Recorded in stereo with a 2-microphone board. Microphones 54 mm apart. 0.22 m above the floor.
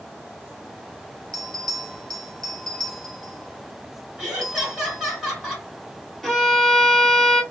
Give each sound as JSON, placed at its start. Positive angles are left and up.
{"t": 1.3, "sound": "a bell", "side_deg": 5, "distance_m": 0.9}
{"t": 4.2, "sound": "laughter", "side_deg": -10, "distance_m": 1.8}
{"t": 6.2, "sound": "a violin", "side_deg": 5, "distance_m": 0.9}